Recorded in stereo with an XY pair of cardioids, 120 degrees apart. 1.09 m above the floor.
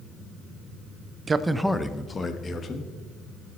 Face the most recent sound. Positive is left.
turn(degrees=40)